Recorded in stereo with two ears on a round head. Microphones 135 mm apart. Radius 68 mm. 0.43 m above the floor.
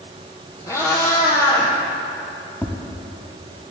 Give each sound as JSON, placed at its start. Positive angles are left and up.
{"t": 0.7, "sound": "a cat meowing", "side_deg": 20, "distance_m": 2.5}
{"t": 2.6, "sound": "tapping", "side_deg": 10, "distance_m": 1.1}